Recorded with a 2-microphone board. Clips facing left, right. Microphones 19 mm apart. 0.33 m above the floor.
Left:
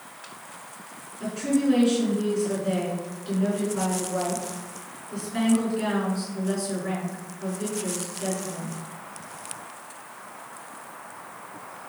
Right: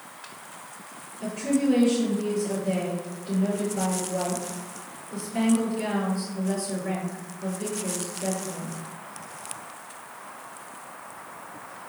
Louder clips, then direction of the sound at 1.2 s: Left 1 dB; 40° left (ahead or behind).